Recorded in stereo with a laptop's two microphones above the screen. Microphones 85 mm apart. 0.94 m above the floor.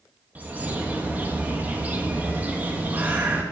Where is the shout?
No shout in this recording.